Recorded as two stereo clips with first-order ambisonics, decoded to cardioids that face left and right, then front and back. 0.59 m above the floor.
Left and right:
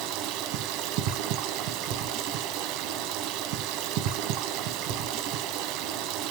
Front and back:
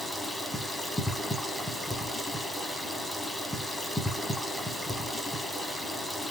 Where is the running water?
85° right, 0.8 m.